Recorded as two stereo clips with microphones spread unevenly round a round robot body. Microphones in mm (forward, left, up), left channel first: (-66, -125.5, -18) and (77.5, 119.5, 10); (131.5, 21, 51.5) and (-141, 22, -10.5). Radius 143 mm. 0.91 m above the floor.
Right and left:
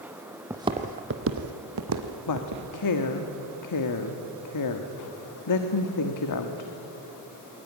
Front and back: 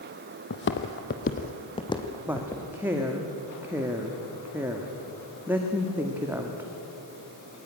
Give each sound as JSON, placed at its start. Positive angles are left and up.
{"t": 0.5, "sound": "footsteps", "azimuth_deg": -15, "distance_m": 1.4}
{"t": 2.3, "sound": "a woman speaking", "azimuth_deg": -100, "distance_m": 1.4}